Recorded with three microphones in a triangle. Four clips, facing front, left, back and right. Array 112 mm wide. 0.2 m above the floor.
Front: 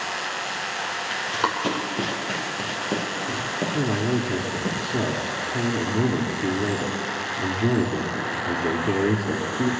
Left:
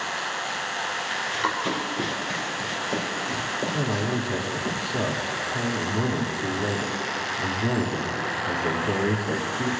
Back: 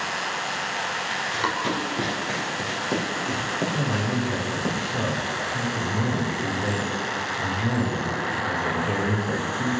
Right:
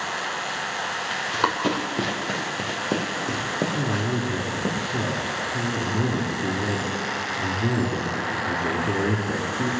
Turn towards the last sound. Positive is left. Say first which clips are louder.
# right 1 dB, front 2 dB
turn(degrees=-10)